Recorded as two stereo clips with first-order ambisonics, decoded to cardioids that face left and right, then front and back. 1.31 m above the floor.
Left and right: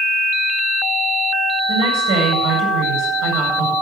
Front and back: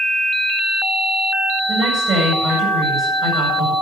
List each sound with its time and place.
1.7 s a woman speaking: 115° right, 8 m